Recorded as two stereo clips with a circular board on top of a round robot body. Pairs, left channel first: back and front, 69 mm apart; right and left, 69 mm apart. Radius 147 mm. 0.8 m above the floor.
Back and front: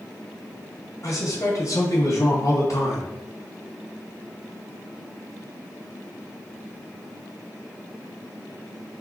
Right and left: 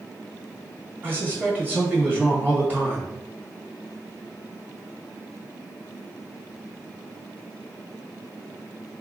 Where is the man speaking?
150° left, 1.7 m.